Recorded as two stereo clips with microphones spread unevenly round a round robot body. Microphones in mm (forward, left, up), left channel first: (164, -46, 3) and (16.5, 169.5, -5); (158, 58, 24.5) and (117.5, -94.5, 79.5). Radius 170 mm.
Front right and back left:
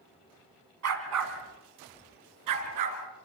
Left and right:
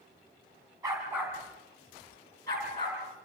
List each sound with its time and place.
0.8 s a dog barking: 175° left, 1.7 m; by 3.0 s 145° left, 3 m